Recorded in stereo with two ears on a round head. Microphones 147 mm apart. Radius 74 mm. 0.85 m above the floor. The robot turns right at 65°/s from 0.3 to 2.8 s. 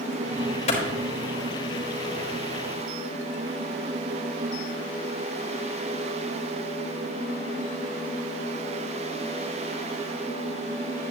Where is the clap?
40° left (ahead or behind), 4 m; by 0.8 s 50° left (ahead or behind), 4 m.